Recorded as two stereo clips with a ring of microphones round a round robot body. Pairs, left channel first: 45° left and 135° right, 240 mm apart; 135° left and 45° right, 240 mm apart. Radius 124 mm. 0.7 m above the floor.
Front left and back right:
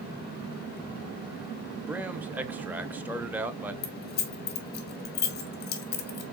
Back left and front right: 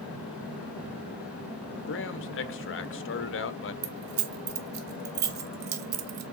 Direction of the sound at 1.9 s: 145° left.